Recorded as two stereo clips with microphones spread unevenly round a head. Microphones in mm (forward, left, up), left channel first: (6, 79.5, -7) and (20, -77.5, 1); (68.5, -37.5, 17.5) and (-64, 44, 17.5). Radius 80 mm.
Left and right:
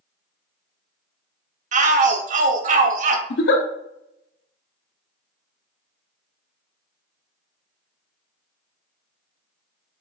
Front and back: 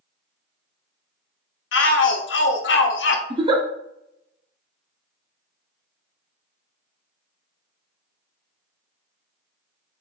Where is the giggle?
90° left, 0.8 m.